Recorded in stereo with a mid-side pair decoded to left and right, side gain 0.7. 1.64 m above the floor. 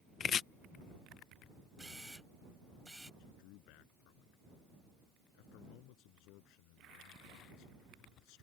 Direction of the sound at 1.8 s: Straight ahead.